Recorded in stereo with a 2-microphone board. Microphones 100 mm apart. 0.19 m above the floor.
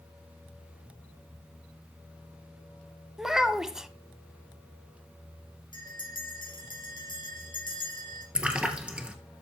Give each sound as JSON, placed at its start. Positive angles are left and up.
{"t": 3.2, "sound": "a child speaking", "side_deg": -5, "distance_m": 0.6}
{"t": 5.7, "sound": "a bell", "side_deg": 50, "distance_m": 3.0}
{"t": 8.3, "sound": "a splash", "side_deg": -10, "distance_m": 1.2}